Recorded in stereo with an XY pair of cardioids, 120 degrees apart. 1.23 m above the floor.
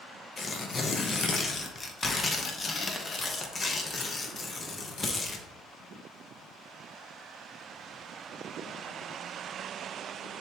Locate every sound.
0.4 s tearing paper: 25° left, 0.9 m